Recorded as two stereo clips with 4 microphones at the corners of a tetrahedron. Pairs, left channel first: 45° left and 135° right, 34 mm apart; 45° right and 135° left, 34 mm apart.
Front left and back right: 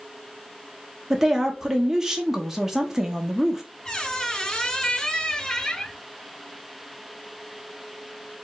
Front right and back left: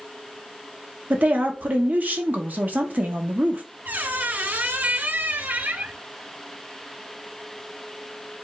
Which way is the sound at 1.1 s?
150° left.